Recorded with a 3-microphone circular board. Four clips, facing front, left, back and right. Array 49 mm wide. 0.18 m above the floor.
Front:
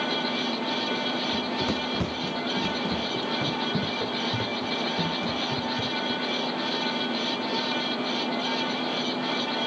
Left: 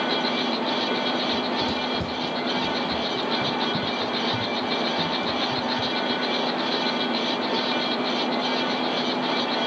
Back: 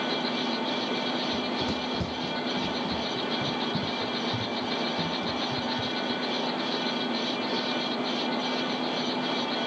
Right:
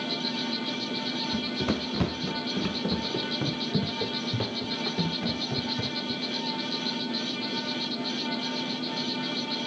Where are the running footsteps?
65° right; by 6.2 s 50° right.